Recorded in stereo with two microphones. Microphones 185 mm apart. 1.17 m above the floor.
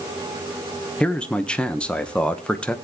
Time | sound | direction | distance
1.0 | a man speaking | 5° left (ahead or behind) | 1.1 m